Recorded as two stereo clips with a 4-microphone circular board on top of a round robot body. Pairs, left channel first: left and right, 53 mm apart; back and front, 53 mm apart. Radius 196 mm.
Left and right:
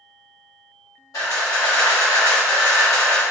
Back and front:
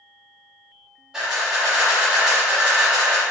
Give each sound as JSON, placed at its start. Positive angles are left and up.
{"t": 1.1, "sound": "a camera shutter", "azimuth_deg": 80, "distance_m": 1.2}